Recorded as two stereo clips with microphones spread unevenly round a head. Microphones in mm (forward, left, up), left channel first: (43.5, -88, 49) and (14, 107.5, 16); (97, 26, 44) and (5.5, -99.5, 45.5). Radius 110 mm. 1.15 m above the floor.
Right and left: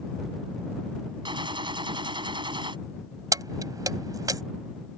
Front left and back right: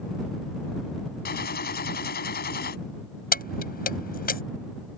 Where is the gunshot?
30° left.